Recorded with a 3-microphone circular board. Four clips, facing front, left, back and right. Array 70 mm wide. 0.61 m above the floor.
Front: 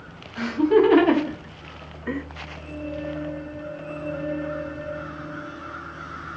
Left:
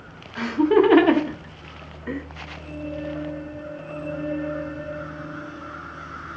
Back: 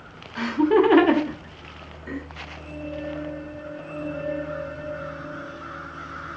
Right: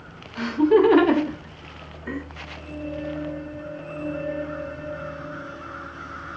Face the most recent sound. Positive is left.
turn(degrees=20)